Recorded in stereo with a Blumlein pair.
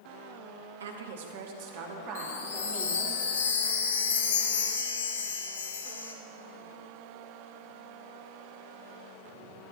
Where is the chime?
65° left, 1.3 m.